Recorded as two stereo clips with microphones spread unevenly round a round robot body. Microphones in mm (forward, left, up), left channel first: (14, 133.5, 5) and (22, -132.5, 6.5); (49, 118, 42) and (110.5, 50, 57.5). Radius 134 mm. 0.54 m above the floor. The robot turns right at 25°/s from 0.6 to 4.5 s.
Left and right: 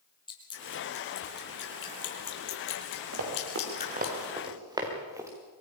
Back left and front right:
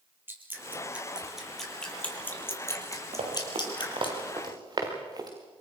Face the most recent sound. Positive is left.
turn(degrees=-10)